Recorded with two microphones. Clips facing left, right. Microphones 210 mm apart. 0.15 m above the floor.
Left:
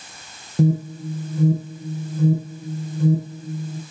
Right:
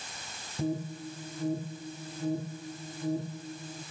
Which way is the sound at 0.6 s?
70° left (ahead or behind).